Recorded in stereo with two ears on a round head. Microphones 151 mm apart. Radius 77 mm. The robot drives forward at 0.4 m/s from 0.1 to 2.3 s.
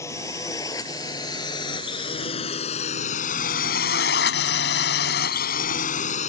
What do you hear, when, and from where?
0.0 s a drone: 15° left (ahead or behind); by 6.3 s 45° left (ahead or behind)